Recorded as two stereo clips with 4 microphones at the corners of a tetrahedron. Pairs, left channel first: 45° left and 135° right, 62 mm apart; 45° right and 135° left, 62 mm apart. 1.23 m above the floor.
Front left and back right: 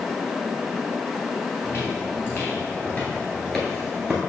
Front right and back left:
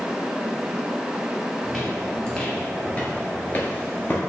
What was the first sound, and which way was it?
Footsteps, 35° left.